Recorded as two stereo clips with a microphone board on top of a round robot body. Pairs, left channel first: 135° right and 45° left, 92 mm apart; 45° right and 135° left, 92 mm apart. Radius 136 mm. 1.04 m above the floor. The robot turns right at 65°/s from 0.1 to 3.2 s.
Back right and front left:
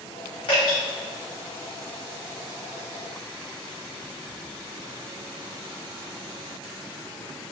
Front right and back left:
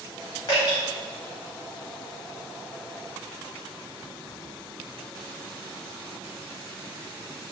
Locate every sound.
0.5 s dripping: 95° right, 1.6 m; by 0.8 s 75° right, 1.6 m